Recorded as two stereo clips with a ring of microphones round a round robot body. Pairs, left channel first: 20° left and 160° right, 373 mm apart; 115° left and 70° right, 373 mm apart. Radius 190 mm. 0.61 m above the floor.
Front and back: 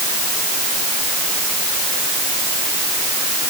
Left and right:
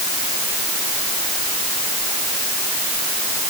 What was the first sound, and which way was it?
Only background noise.